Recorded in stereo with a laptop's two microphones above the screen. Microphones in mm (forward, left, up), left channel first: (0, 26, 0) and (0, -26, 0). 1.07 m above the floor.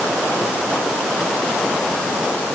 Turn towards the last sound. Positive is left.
No sound to turn to.